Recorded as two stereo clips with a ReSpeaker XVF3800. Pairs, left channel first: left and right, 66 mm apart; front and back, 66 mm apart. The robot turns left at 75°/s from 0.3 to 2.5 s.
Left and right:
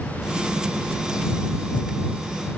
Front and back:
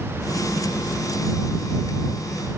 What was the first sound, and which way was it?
Only background noise.